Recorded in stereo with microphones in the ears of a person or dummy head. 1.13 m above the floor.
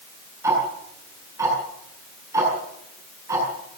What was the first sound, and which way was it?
Ticking, 15° right (ahead or behind).